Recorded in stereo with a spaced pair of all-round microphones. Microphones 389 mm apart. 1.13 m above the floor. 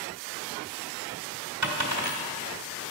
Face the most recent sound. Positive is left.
turn(degrees=-45)  # may be behind; listen again after turning